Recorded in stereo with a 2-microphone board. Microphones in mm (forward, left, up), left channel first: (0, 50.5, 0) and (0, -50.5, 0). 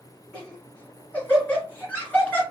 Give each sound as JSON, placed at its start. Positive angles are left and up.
{"t": 0.3, "sound": "laughter", "side_deg": 15, "distance_m": 1.4}